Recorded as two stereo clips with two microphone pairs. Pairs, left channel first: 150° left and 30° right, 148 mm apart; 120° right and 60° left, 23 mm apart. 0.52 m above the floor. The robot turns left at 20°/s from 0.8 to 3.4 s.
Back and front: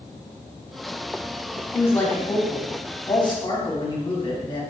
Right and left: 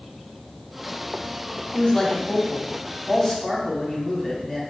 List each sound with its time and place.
1.7 s a man speaking: 140° right, 1.1 m; by 4.6 s 175° right, 1.1 m